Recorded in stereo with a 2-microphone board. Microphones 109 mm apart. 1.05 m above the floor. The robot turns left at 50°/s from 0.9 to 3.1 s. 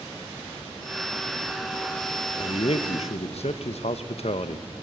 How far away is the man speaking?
About 0.8 m.